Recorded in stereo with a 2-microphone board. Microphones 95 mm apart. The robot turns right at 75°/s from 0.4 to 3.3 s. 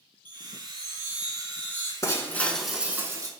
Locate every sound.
0.2 s a chime: 85° right, 1.8 m; by 1.9 s 30° left, 1.8 m
2.0 s breaking glass: 130° left, 0.6 m; by 3.3 s 130° right, 0.6 m